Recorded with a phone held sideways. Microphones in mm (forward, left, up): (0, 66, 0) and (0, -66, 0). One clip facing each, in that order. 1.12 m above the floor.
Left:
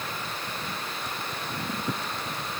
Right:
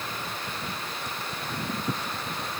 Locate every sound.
Only background noise.